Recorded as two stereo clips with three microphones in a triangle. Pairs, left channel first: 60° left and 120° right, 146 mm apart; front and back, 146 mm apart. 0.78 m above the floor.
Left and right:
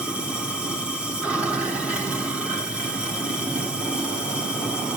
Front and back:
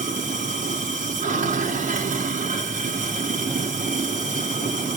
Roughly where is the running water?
Behind left.